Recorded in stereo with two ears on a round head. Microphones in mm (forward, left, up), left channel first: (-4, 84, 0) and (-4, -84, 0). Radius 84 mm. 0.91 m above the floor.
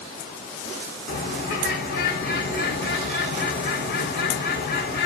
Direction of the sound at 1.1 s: 45° left (ahead or behind).